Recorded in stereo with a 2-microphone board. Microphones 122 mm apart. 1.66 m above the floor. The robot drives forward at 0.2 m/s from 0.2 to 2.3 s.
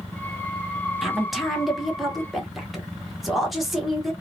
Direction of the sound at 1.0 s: Centre (ahead or behind).